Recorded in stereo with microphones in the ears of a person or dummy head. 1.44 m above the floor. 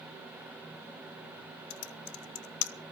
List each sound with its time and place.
1.7 s typing on a keyboard: 75° left (ahead or behind), 0.6 m